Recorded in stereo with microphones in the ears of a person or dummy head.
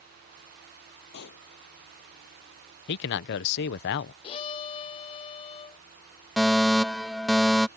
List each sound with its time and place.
1.1 s a pop: 65° left (ahead or behind)
2.9 s a man speaking: 60° left (ahead or behind)
4.2 s a violin: 30° left (ahead or behind)
6.4 s a fire alarm: 5° left (ahead or behind)